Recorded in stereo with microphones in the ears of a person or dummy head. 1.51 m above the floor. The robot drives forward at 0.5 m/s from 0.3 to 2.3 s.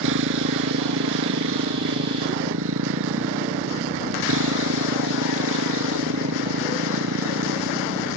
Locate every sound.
0.0 s a motorcycle: 80° right